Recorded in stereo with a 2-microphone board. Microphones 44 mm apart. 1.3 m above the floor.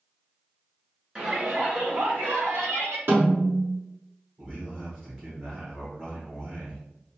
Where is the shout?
25° right (ahead or behind), 1.9 m; by 3.0 s 75° right (ahead or behind), 1.6 m.